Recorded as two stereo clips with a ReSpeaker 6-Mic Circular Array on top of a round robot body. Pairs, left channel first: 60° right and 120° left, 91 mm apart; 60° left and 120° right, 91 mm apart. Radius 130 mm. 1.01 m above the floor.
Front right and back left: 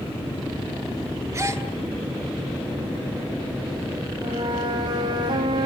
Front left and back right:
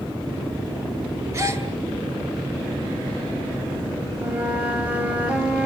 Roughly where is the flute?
Behind.